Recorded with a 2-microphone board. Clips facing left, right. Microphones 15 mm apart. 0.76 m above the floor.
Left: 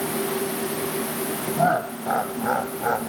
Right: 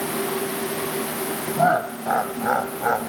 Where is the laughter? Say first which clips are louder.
Right 2 dB; 15° right (ahead or behind).